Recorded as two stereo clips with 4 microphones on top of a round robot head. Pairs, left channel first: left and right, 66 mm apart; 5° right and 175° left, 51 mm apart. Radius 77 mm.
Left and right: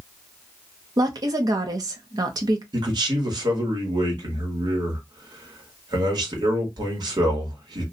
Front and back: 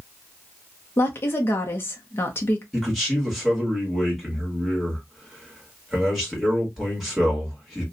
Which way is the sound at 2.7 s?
95° right.